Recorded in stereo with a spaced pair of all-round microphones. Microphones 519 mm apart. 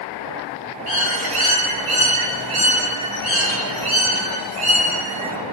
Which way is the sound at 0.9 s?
80° right.